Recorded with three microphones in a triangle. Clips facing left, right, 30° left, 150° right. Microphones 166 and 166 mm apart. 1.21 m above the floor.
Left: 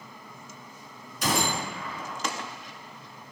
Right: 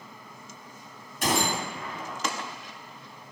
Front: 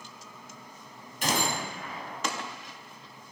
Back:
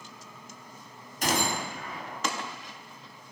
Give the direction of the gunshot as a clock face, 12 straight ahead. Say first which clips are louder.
Right 1 dB, back 1 dB; 4 o'clock.